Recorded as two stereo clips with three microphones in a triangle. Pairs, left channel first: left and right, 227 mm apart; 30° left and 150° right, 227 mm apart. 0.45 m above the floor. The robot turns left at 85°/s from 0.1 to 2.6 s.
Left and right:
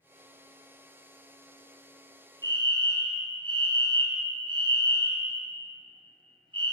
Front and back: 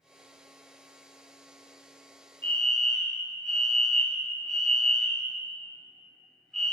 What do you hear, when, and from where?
2.4 s a fire alarm: 40° right, 1.9 m; by 6.7 s 55° right, 1.9 m